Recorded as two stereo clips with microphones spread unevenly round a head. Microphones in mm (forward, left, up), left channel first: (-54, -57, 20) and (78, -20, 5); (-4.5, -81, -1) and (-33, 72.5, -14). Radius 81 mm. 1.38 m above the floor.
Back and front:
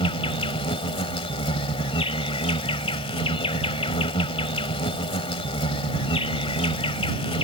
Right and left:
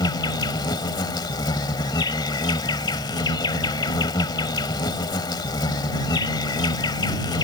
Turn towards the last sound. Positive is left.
turn(degrees=-130)